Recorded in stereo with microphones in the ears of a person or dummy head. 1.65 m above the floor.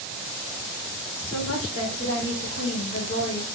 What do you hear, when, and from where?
1.2 s a woman speaking: 55° left (ahead or behind), 1.0 m; by 3.5 s 35° left (ahead or behind), 1.0 m